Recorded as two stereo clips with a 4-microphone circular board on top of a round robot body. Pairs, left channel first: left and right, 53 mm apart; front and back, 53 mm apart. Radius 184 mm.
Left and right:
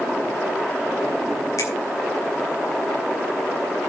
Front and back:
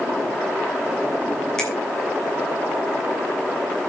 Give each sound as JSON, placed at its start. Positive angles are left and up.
{"t": 1.6, "sound": "a finger snap", "azimuth_deg": 80, "distance_m": 6.5}